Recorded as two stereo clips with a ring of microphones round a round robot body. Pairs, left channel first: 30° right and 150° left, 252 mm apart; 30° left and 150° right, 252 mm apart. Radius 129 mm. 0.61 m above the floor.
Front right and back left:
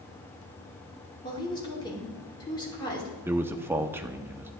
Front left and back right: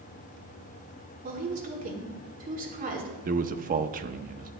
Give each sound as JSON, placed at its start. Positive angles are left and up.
{"t": 1.2, "sound": "a woman speaking", "azimuth_deg": -100, "distance_m": 2.0}
{"t": 3.2, "sound": "a man speaking", "azimuth_deg": -135, "distance_m": 0.6}